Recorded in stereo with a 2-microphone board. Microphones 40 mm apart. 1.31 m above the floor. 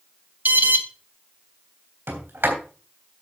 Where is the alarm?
50° right (ahead or behind), 1.3 m.